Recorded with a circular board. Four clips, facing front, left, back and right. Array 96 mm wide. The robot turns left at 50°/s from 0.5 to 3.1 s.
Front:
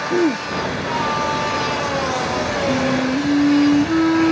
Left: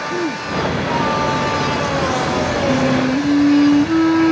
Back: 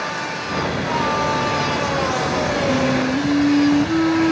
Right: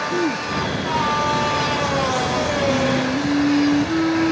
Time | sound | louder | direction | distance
0.1 | throat clearing | even, front 9 dB | straight ahead | ?
2.7 | a flute | left 3 dB, front 2 dB | 90° left | ?